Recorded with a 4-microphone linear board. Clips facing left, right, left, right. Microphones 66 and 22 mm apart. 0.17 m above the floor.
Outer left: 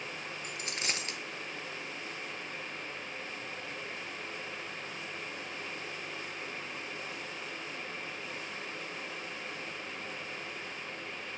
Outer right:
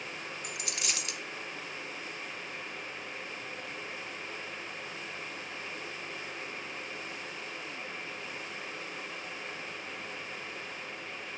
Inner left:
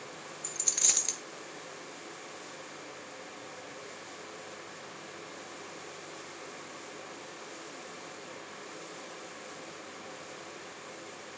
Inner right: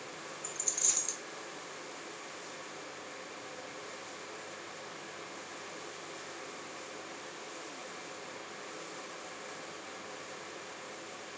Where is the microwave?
No microwave in this recording.